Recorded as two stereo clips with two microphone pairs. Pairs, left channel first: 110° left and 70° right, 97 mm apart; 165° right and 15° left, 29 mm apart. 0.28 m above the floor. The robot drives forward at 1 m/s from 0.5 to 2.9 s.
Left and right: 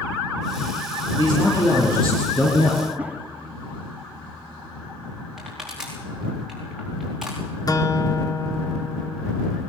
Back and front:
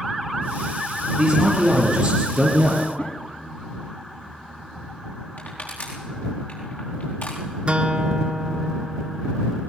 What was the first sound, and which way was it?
A man speaking, 75° left.